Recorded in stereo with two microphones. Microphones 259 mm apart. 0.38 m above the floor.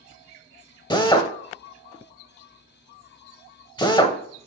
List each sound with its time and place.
0.9 s a drill: 15° left (ahead or behind), 0.9 m